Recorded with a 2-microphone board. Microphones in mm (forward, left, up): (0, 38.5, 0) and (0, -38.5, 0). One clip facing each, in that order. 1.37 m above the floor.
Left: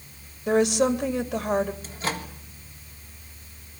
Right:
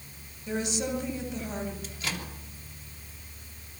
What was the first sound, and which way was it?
A woman speaking, 70° left (ahead or behind).